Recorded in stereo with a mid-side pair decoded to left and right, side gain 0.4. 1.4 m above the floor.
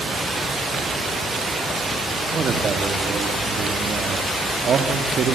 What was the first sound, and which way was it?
A man speaking, 55° right.